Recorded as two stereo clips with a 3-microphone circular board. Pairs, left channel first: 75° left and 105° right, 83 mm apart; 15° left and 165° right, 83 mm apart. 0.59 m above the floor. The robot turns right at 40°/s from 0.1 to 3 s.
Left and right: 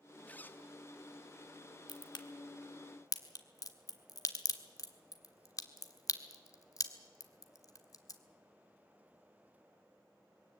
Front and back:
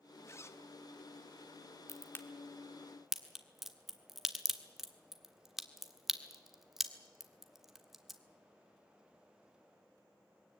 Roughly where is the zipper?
Ahead.